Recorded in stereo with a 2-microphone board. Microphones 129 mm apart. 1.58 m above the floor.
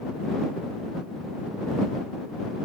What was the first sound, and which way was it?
Only background noise.